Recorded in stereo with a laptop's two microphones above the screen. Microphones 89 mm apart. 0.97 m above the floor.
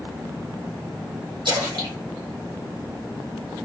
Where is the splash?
80° right, 2.5 m.